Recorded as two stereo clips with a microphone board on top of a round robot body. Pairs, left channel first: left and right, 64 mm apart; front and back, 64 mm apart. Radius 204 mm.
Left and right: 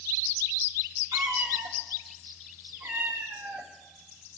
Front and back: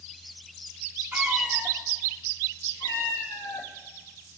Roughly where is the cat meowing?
Behind right.